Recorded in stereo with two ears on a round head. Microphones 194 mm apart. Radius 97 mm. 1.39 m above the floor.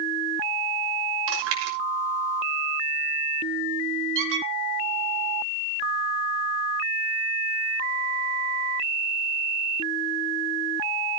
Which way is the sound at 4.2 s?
65° right (ahead or behind).